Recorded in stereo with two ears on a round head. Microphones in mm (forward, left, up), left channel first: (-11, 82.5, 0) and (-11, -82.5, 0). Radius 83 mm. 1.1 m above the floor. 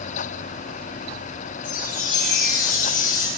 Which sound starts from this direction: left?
A chime, at 1.6 s.